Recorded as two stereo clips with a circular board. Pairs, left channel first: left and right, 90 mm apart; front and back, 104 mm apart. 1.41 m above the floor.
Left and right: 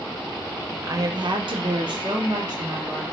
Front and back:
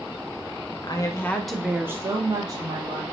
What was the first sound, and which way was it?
A woman speaking, 40° right.